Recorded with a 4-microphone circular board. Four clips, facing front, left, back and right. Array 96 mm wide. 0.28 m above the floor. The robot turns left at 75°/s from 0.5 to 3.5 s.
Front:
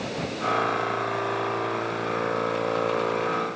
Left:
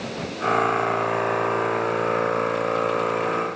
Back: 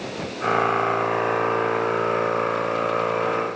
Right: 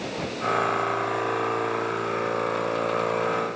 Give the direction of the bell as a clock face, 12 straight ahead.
I don't hear a bell.